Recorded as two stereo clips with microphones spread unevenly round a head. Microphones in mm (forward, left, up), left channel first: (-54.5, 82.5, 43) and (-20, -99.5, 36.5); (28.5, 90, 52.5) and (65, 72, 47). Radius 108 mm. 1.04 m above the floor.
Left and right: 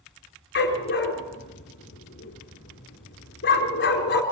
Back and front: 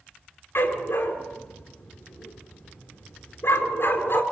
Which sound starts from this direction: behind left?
A dog barking, at 0.6 s.